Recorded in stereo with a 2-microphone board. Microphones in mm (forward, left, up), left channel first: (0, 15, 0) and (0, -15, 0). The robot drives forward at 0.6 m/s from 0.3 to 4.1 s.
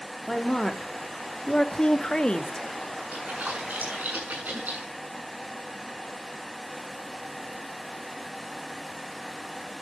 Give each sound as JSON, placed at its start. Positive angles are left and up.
{"t": 0.3, "sound": "a woman speaking", "side_deg": 15, "distance_m": 1.7}
{"t": 3.1, "sound": "a splash", "side_deg": -80, "distance_m": 7.0}